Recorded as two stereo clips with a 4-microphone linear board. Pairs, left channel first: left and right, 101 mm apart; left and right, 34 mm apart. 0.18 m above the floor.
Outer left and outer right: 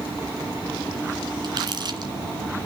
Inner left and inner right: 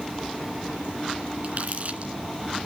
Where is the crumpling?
50° right (ahead or behind), 2.5 m.